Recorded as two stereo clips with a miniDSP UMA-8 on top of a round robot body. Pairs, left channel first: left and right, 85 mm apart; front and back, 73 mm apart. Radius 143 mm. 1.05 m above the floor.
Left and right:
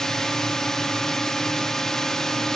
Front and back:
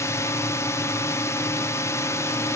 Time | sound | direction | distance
0.0 | a drone | 10° left | ?